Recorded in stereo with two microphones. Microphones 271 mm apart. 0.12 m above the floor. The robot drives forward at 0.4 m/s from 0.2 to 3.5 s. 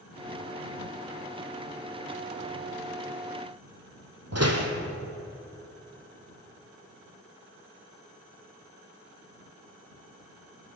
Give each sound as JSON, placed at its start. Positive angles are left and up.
{"t": 4.3, "sound": "a door slam", "side_deg": -65, "distance_m": 4.0}